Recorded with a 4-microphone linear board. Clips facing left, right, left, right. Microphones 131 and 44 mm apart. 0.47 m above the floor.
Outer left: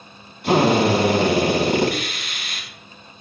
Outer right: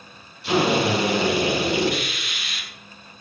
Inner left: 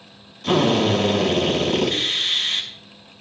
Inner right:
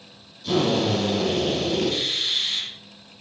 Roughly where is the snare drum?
I don't hear a snare drum.